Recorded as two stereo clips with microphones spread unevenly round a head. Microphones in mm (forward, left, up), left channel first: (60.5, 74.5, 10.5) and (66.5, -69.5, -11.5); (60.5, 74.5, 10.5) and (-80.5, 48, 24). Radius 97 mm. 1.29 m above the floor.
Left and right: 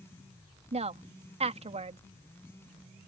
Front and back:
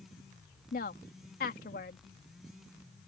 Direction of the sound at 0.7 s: 40° right.